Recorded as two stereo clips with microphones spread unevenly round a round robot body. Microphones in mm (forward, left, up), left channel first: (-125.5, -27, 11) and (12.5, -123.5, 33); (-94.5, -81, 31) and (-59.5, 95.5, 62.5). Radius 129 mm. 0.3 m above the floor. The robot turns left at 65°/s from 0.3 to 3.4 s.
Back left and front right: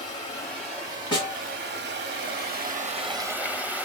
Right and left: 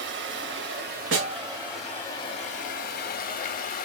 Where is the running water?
80° left, 0.7 m; by 3.9 s 120° right, 0.7 m.